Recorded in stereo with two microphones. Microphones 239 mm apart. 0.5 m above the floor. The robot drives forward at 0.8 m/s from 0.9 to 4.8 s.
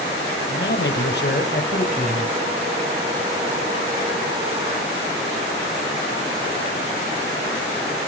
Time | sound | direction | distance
0.5 | a man speaking | 55° left (ahead or behind) | 1.8 m